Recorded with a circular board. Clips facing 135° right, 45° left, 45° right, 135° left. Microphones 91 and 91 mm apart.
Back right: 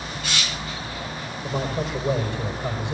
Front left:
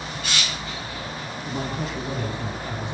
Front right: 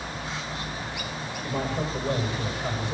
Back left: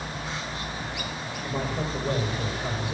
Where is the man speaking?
145° right, 6.5 m; by 2.9 s 140° right, 6 m.